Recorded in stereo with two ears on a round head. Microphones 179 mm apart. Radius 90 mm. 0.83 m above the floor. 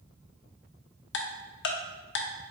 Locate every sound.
1.1 s ticking: 60° left (ahead or behind), 0.6 m